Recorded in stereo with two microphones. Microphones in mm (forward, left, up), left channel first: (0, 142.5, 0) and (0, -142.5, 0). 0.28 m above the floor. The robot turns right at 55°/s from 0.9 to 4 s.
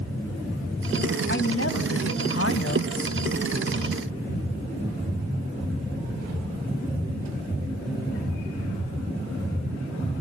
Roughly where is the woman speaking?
Ahead left.